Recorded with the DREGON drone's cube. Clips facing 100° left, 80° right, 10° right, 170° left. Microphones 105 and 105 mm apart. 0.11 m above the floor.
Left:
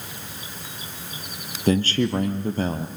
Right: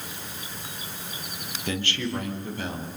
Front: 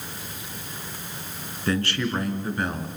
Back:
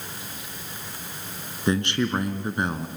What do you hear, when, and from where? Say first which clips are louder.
1.7 s a man speaking: left 9 dB, back 2 dB; 115° left, 1.9 m